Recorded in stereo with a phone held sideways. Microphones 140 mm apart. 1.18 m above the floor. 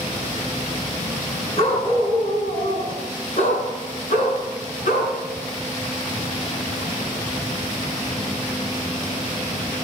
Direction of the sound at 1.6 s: 50° left (ahead or behind).